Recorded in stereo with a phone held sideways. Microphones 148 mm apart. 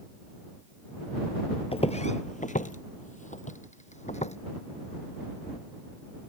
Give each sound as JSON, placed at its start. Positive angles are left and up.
{"t": 1.7, "sound": "footsteps", "side_deg": 40}